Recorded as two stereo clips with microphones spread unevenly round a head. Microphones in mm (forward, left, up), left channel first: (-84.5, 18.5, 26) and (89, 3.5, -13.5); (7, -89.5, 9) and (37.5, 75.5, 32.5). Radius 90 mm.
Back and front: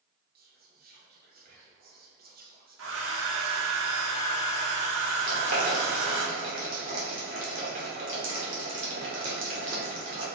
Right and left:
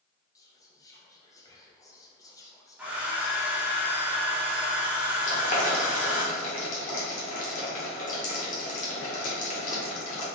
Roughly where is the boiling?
Ahead right.